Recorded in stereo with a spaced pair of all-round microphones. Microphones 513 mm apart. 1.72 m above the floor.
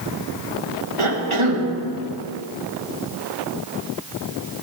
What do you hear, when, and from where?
1.0 s a cough: 70° right (ahead or behind), 2 m